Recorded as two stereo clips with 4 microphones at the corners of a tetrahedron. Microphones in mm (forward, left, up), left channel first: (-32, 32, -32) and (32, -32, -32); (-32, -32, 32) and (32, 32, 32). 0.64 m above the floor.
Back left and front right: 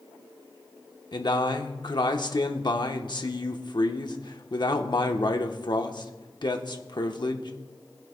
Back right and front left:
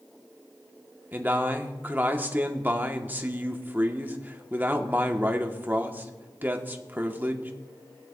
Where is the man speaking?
110° left, 1.0 m.